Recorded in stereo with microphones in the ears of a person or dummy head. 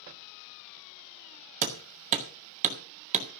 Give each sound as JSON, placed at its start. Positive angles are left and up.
{"t": 1.6, "sound": "hammering", "side_deg": -35, "distance_m": 1.7}